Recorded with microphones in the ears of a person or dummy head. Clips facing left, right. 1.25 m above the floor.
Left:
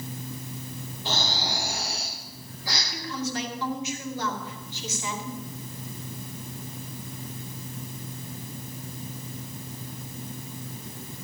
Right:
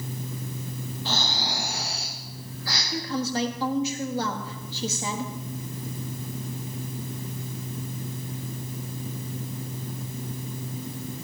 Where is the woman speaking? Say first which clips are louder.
Right 5 dB; 30° right (ahead or behind), 1.5 m.